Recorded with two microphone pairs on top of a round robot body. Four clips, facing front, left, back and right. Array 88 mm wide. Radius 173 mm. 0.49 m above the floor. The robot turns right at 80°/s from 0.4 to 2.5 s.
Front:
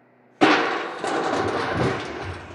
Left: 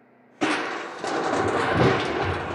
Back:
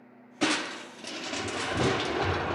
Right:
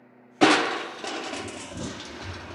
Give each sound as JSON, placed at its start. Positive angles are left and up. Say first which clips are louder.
{"t": 0.4, "sound": "crushing", "louder": "right 5 dB, front 12 dB", "azimuth_deg": -35}